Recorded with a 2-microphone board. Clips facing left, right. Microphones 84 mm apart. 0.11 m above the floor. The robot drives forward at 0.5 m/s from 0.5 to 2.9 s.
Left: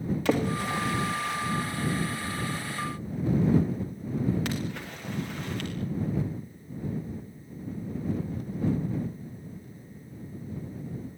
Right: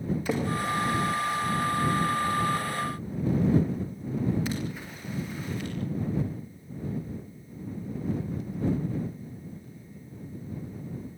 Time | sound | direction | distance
0.2 | a splash | 80° left | 6.5 m